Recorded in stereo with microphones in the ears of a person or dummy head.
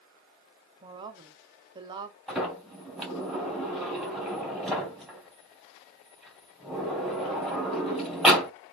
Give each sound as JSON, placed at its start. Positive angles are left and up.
{"t": 0.8, "sound": "a woman speaking", "side_deg": -25, "distance_m": 1.1}
{"t": 2.3, "sound": "a sliding door", "side_deg": 0, "distance_m": 2.0}